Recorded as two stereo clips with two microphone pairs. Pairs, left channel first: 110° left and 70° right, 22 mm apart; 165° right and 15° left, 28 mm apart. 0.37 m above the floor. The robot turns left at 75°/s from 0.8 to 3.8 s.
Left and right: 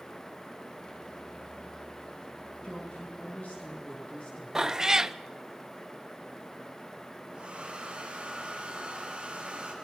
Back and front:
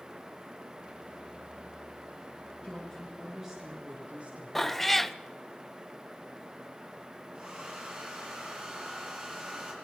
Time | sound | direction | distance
2.6 | a woman speaking | 155° left | 6.5 m
4.5 | a cat meowing | 85° right | 0.5 m
7.3 | a hair dryer | 25° right | 7.5 m